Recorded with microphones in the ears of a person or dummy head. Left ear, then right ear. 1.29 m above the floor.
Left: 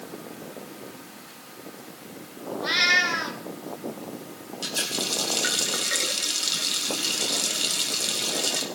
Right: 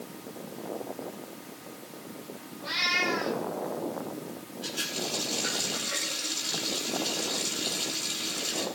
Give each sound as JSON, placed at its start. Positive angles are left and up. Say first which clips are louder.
{"t": 2.6, "sound": "a cat meowing", "louder": "left 6 dB", "side_deg": 70, "distance_m": 3.0}
{"t": 4.6, "sound": "a running tap", "louder": "left 5 dB", "side_deg": 80, "distance_m": 4.0}